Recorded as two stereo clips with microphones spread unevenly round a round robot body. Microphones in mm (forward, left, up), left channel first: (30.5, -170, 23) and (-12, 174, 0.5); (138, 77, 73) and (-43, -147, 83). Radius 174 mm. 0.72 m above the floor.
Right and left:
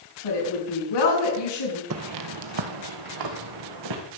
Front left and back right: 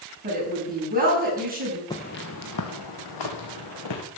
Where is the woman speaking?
70° right, 6 m.